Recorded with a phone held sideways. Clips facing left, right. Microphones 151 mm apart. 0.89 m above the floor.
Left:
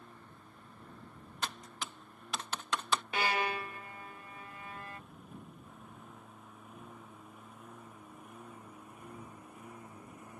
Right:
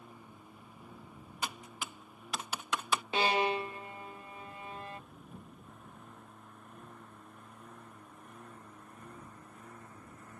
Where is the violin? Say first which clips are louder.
Right 6 dB; 25° right (ahead or behind).